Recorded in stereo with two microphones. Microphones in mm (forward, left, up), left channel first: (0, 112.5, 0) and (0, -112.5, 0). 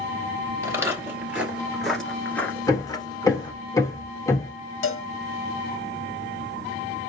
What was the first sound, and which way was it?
Footsteps, 15° right (ahead or behind).